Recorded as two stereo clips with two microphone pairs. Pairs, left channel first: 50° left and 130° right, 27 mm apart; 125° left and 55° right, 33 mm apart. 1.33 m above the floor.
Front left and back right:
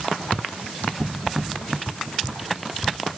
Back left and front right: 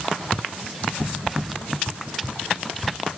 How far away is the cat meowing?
No cat meowing in this recording.